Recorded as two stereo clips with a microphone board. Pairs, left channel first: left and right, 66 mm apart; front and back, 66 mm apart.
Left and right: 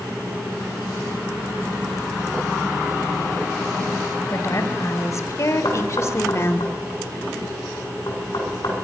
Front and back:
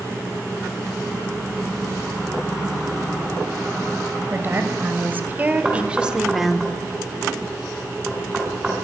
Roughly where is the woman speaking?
Behind left.